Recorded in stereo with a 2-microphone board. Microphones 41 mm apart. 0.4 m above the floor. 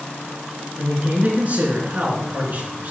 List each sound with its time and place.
0.8 s a man speaking: 45° right (ahead or behind), 5 m